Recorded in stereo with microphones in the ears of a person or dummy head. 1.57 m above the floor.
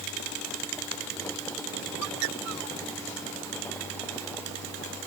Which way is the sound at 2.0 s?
60° right (ahead or behind).